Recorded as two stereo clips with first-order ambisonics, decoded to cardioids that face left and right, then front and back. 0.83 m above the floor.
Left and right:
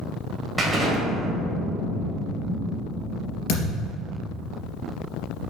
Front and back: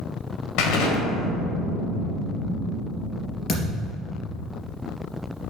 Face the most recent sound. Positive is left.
turn(degrees=65)